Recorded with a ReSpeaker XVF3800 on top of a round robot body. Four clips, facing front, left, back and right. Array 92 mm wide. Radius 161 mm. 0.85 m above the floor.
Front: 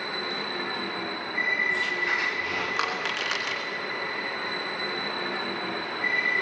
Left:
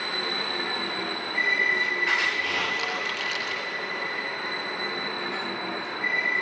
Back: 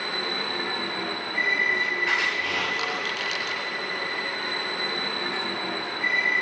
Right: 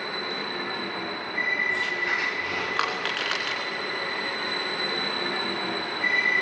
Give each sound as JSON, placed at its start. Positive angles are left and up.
{"t": 2.8, "sound": "crushing", "azimuth_deg": -65, "distance_m": 3.0}